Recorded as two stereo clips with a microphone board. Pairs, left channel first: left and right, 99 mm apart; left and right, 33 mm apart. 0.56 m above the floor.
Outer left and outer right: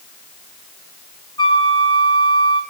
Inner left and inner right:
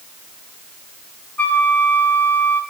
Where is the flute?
55° left (ahead or behind), 6 m.